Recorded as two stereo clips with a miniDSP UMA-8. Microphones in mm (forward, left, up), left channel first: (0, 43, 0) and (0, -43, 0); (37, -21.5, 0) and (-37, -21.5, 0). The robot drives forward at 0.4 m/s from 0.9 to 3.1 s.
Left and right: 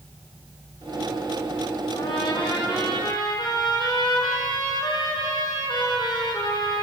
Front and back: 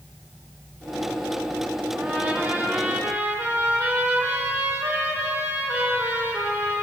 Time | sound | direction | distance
1.9 | a trumpet | 120° left | 5 m